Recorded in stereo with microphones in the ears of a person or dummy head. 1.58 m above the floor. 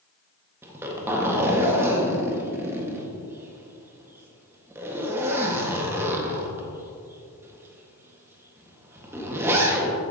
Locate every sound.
0.6 s a zipper: 15° right (ahead or behind), 1.5 m